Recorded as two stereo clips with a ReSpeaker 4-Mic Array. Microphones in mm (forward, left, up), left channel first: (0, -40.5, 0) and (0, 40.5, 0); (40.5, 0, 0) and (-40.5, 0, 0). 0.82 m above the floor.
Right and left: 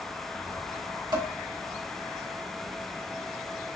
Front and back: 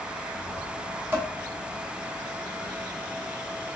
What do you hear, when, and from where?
1.1 s dishes clattering: 115° left, 1.9 m